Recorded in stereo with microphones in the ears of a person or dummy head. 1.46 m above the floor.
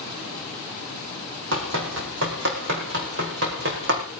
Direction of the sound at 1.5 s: 60° right (ahead or behind).